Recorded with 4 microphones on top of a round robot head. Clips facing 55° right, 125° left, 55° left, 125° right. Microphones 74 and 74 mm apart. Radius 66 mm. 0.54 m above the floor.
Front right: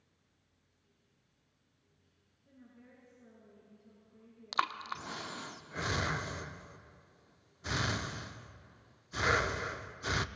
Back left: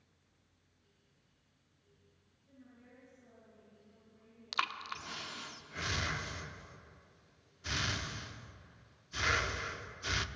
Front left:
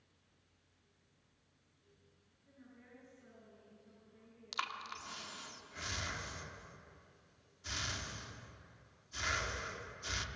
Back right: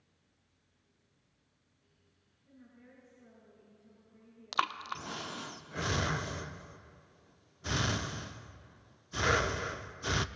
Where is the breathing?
110° right, 0.6 m.